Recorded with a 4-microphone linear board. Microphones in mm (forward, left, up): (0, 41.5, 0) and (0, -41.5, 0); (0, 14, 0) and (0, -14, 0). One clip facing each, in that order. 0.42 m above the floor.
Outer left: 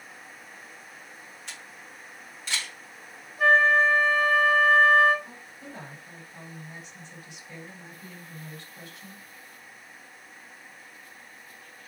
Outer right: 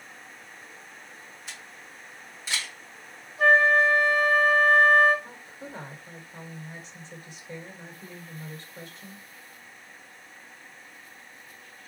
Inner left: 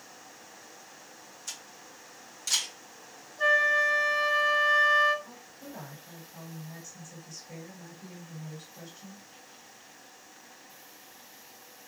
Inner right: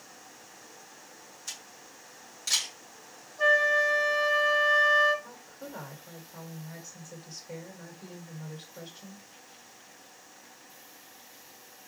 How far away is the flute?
About 3.5 m.